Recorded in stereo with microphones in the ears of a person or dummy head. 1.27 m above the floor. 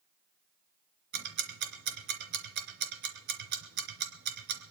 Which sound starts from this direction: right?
Ticking, at 1.1 s.